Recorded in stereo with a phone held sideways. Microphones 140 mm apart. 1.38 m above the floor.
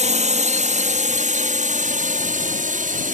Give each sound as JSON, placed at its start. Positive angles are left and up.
{"t": 0.0, "sound": "a drone", "side_deg": -55}